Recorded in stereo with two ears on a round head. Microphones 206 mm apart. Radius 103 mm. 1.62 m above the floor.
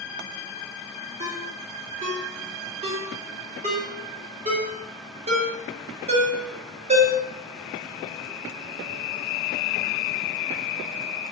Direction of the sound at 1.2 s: 30° right (ahead or behind).